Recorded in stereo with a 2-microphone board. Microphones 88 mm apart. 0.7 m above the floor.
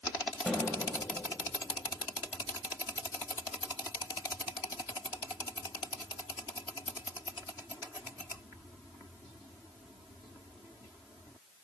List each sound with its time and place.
0.5 s a snare drum: 5° right (ahead or behind), 2.5 m